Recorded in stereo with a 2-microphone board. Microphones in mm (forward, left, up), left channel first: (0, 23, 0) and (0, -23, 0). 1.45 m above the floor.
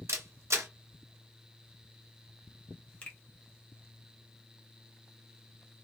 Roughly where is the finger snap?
Left.